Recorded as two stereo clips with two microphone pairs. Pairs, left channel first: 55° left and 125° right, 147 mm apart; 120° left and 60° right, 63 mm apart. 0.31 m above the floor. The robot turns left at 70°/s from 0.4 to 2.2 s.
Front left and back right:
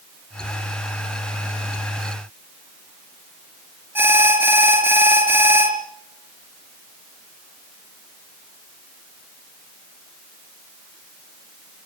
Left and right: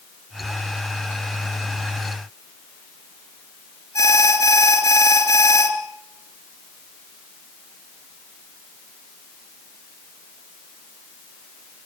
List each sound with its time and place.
4.0 s an alarm: 160° left, 3.5 m